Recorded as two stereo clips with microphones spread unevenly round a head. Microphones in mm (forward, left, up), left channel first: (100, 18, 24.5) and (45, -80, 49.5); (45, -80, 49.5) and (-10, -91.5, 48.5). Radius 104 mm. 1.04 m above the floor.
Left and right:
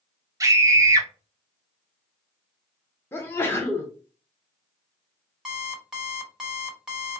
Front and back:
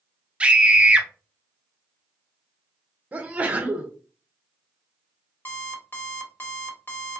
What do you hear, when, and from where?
0.4 s a scream: 170° right, 0.7 m
3.1 s a sneeze: 125° left, 0.7 m
5.5 s an alarm clock: 35° right, 1.7 m